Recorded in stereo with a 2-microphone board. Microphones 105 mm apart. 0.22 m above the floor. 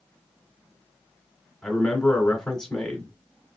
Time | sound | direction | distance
1.6 | a man speaking | 5° left (ahead or behind) | 1.6 m